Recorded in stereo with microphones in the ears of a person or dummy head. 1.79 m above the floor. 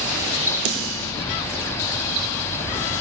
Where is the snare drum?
75° right (ahead or behind), 4.5 m.